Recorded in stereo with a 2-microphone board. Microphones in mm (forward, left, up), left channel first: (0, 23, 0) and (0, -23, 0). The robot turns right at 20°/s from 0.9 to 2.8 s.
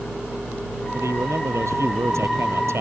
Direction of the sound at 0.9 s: 105° right.